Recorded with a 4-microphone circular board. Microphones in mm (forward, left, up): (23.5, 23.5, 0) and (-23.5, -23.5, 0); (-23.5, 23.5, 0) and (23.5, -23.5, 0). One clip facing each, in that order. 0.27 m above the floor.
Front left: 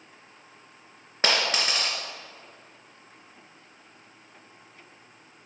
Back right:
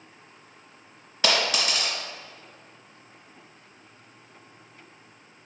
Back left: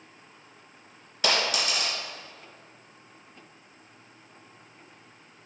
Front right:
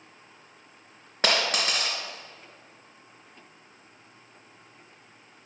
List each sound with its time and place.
1.2 s a dropped coin: 5° right, 2 m